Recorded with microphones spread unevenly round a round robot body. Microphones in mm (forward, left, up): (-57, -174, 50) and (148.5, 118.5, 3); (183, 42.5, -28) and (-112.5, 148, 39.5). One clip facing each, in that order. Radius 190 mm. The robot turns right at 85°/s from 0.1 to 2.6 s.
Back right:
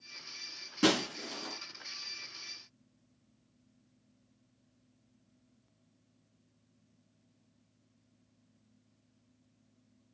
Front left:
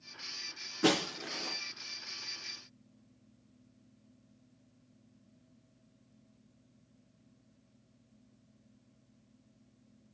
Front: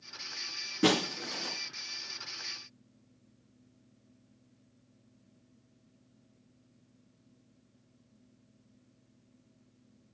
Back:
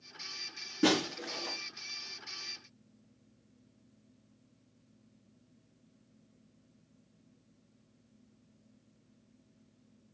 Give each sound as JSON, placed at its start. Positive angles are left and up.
{"t": 0.8, "sound": "breaking glass", "azimuth_deg": -105, "distance_m": 5.5}